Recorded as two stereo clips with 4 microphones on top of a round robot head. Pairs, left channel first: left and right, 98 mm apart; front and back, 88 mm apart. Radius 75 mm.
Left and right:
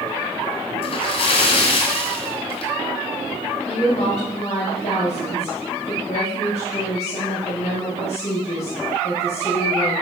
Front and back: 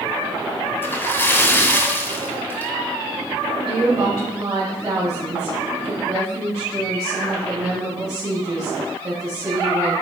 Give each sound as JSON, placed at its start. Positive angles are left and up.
{"t": 0.8, "sound": "a splash", "azimuth_deg": 70, "distance_m": 1.9}
{"t": 3.6, "sound": "a woman speaking", "azimuth_deg": 130, "distance_m": 4.5}